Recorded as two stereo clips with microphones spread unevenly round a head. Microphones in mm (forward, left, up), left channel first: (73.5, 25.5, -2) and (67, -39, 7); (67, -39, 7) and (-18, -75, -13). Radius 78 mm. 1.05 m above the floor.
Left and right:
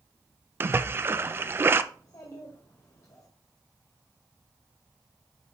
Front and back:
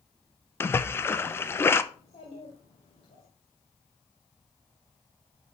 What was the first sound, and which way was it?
A splash, 45° right.